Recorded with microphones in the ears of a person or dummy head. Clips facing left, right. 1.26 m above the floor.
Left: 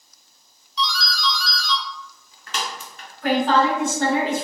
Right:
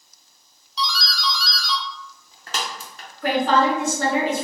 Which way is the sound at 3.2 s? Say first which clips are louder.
Even; 80° right.